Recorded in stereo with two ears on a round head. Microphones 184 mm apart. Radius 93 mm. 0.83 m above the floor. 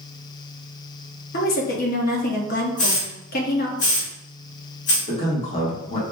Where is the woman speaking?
45° left (ahead or behind), 1.1 m.